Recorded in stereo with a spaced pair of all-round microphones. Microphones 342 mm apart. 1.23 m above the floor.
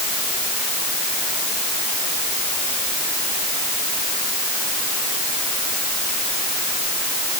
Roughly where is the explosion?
I don't hear an explosion.